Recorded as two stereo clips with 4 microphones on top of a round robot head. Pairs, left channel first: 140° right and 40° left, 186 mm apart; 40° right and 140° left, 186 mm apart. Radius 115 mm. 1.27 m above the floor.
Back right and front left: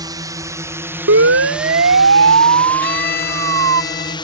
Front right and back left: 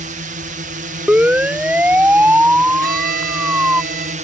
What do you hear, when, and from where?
0.0 s a drone: 105° left; by 4.3 s 165° left
1.1 s a siren: 55° left; by 3.8 s 60° left
2.8 s a violin: straight behind